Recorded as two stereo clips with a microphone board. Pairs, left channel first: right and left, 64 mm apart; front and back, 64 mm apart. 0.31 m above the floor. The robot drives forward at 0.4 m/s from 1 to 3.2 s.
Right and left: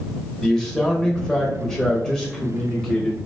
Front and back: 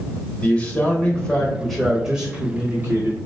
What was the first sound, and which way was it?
A man speaking, 20° right.